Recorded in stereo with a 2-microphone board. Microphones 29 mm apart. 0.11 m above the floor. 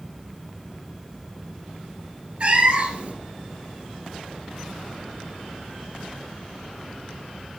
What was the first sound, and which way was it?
A cat meowing, 45° right (ahead or behind).